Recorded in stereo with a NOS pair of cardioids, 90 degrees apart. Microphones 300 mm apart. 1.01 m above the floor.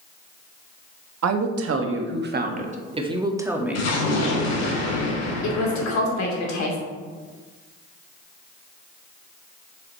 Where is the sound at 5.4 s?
65° left, 2.5 m.